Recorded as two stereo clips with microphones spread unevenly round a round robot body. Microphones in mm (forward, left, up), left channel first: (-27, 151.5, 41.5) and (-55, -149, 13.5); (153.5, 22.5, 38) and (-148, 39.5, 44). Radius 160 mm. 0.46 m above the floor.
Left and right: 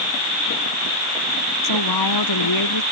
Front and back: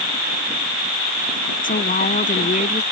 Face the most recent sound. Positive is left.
turn(degrees=65)